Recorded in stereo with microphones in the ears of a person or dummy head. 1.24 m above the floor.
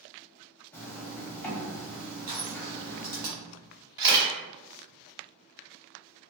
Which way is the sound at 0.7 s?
10° left (ahead or behind).